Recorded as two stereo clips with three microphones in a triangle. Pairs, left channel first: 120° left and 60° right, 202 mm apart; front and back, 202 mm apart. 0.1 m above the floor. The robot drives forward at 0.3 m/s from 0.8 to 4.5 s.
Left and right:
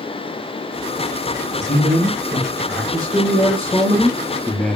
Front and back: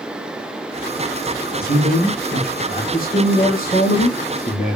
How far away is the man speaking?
About 3 m.